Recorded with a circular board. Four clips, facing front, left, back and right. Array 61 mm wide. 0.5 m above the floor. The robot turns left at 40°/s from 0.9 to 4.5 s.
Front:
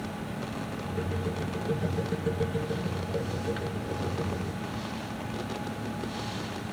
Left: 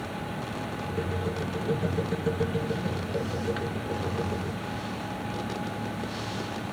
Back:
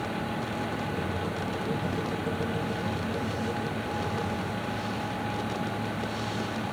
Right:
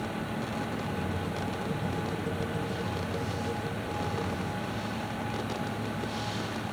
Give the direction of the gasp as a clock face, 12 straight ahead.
No gasp in this recording.